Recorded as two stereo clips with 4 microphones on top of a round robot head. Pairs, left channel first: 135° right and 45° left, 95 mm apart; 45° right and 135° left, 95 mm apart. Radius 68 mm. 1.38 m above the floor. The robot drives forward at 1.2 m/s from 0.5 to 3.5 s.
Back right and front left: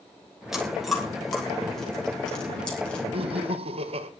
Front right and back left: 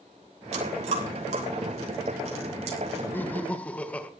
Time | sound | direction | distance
0.5 | chewing | 135° left | 6 m
3.1 | laughter | 25° left | 2.5 m